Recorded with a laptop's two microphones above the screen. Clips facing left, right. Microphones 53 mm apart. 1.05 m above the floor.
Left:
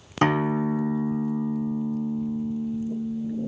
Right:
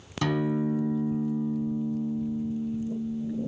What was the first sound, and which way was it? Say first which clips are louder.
A guitar: left 4 dB; 40° left (ahead or behind).